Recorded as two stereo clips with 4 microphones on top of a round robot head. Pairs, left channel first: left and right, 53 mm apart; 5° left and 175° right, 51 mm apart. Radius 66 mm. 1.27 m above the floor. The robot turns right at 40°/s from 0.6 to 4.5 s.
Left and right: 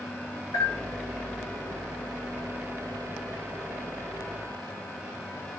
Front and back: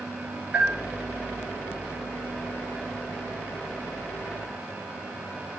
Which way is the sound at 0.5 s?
110° left.